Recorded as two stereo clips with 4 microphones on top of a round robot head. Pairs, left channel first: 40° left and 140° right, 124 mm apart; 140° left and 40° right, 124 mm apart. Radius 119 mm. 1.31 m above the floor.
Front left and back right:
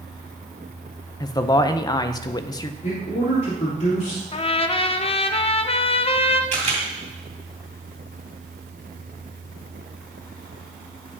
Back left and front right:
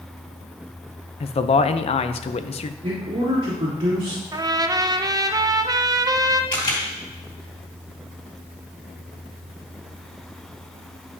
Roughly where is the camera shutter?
Behind.